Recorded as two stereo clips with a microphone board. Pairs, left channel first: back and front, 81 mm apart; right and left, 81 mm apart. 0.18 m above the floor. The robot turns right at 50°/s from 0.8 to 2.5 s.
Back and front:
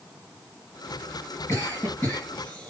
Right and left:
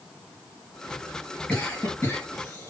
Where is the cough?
155° right, 2 m; by 2.7 s 105° right, 2 m.